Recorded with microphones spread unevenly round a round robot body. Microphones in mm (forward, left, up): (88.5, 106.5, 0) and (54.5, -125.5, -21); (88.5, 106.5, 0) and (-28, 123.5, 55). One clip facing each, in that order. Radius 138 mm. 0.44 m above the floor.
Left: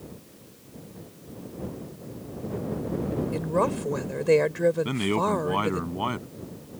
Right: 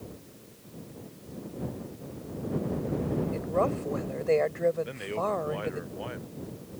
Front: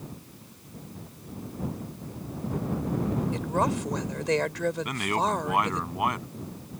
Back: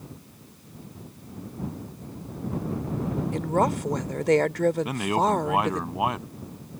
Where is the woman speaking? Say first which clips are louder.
Left 2 dB, back 7 dB; 130° left.